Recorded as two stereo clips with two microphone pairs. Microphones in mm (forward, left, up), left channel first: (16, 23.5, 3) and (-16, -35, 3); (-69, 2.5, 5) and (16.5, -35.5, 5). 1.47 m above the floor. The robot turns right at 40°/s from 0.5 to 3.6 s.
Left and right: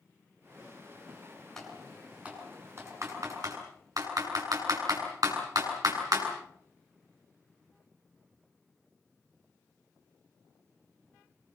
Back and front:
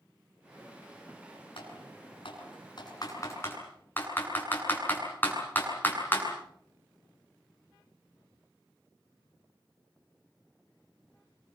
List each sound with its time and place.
1.6 s typing on a keyboard: 145° left, 8 m; by 6.2 s 135° right, 8 m